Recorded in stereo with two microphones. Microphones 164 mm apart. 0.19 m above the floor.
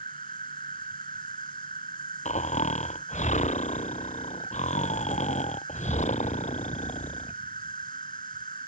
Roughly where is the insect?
Right.